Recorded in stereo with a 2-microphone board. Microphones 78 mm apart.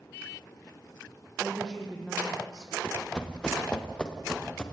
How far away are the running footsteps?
About 2 m.